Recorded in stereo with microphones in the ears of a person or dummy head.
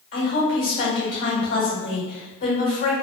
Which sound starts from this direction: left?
A woman speaking, at 0.1 s.